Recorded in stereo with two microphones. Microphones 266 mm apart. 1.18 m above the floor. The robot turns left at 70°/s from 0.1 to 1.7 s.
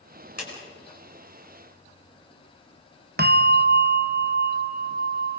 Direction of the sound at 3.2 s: 35° right (ahead or behind).